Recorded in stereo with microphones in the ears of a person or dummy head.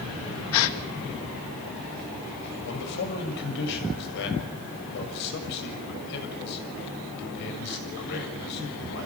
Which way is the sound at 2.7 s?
60° left (ahead or behind).